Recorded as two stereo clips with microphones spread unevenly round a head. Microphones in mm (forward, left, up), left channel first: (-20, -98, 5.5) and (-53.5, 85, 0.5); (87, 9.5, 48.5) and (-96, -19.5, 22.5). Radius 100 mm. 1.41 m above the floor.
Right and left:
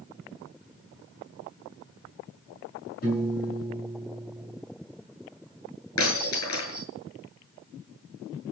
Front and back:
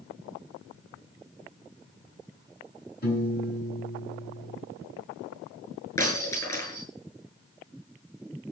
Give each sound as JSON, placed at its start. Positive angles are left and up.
{"t": 3.0, "sound": "a piano", "azimuth_deg": -30, "distance_m": 9.5}
{"t": 6.0, "sound": "breaking glass", "azimuth_deg": -65, "distance_m": 8.0}